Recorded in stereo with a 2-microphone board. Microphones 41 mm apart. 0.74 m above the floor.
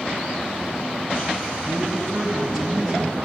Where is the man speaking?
5° left (ahead or behind), 5 m; by 3.2 s 20° right (ahead or behind), 4 m.